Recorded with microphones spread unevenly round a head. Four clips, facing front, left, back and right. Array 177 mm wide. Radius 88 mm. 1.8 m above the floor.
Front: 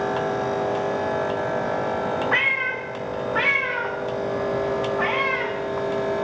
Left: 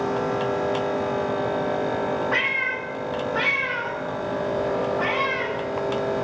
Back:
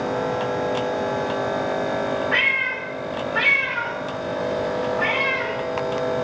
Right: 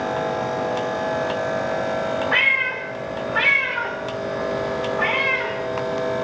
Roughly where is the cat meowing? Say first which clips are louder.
Right 3 dB, even; ahead right.